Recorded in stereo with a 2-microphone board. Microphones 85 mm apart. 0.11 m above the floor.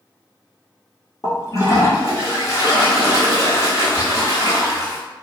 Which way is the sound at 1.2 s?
40° left (ahead or behind).